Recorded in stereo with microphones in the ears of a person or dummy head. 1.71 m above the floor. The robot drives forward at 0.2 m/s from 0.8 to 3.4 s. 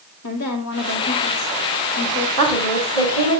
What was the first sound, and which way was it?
A woman speaking, 85° left.